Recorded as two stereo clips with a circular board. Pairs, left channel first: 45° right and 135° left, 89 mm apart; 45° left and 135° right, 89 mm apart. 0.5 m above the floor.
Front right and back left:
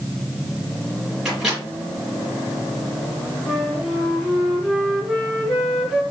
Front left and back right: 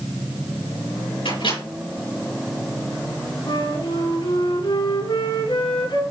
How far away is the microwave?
About 5.5 m.